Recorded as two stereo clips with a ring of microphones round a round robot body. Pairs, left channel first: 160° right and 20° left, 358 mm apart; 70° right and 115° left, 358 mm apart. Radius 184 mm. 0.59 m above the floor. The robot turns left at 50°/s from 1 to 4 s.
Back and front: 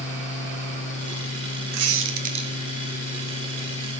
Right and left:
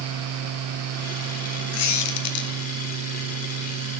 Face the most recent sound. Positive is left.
turn(degrees=-130)